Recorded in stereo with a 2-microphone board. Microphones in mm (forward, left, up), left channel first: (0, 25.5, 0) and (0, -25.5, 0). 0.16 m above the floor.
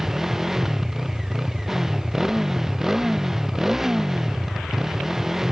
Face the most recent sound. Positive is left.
turn(degrees=-5)  # may be behind; listen again after turning